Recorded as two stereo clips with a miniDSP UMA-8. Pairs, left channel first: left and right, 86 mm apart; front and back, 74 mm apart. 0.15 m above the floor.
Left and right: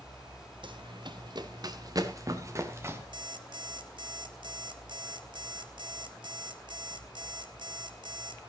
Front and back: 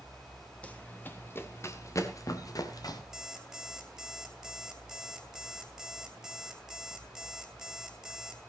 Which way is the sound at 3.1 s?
95° right.